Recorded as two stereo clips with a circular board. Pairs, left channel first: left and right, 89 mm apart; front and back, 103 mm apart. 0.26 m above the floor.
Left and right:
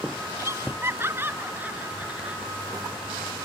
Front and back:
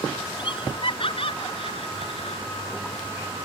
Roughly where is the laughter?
Ahead right.